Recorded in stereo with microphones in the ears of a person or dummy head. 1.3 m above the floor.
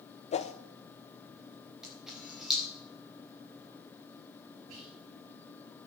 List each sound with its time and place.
0.3 s a whoosh: 30° left (ahead or behind), 0.8 m
1.8 s a camera shutter: 5° right (ahead or behind), 4.5 m
4.7 s whispering: 75° right (ahead or behind), 1.9 m